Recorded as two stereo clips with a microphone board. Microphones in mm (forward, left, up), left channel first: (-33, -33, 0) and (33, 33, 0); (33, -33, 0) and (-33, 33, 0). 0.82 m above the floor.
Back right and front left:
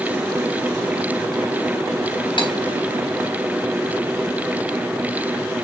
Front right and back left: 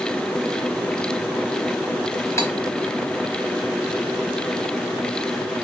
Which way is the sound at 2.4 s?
105° right.